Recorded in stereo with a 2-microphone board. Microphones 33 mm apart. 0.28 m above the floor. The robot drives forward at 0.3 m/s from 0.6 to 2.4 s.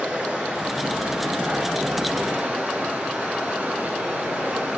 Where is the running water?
40° right (ahead or behind), 2.5 m; by 4.8 s 45° right (ahead or behind), 2 m.